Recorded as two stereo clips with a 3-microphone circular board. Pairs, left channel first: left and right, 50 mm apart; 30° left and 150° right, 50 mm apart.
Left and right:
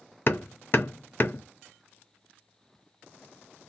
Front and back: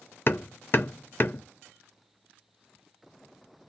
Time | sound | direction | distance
0.3 | hammering | 65° left | 0.6 m